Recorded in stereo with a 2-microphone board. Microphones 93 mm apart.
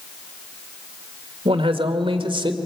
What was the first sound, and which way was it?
A man speaking, 75° right (ahead or behind).